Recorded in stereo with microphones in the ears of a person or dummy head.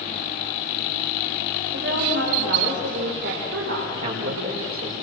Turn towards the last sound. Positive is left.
turn(degrees=-50)  # may be behind; listen again after turning